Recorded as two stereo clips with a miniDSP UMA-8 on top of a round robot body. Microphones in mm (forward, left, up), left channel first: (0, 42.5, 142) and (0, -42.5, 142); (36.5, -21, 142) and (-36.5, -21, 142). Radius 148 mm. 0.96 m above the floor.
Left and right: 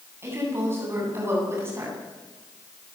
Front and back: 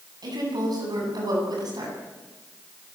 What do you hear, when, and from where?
0.2 s a woman speaking: 155° right, 8.5 m